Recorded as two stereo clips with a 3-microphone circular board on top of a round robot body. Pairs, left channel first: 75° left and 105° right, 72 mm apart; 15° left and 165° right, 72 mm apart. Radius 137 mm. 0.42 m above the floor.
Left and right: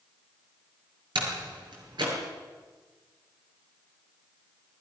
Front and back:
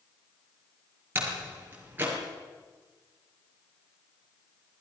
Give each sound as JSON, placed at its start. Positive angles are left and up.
{"t": 1.1, "sound": "a door slam", "azimuth_deg": -100, "distance_m": 6.5}